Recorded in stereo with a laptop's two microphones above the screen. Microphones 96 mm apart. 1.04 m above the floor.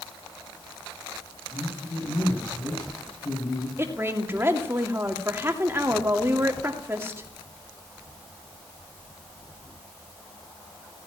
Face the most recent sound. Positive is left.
turn(degrees=-25)  # may be behind; listen again after turning